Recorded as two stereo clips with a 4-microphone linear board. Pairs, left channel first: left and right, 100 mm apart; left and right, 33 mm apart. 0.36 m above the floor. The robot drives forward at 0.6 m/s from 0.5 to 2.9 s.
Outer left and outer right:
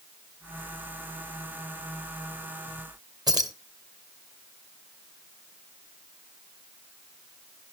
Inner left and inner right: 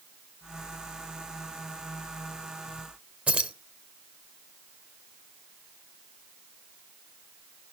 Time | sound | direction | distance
3.3 | keys jangling | 40° right (ahead or behind) | 1.2 m